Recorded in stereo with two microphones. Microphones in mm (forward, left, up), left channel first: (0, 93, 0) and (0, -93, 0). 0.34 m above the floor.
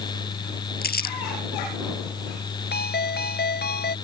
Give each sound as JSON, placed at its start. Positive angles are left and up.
{"t": 0.8, "sound": "crumpling", "side_deg": 60}
{"t": 2.7, "sound": "a ringtone", "side_deg": 70}